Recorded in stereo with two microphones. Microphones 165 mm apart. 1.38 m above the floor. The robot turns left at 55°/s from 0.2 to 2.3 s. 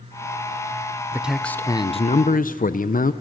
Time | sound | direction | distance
1.1 | a man speaking | 170° right | 0.6 m